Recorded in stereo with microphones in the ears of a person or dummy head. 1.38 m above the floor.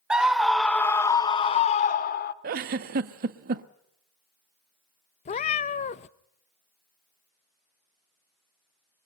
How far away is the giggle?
About 1.2 m.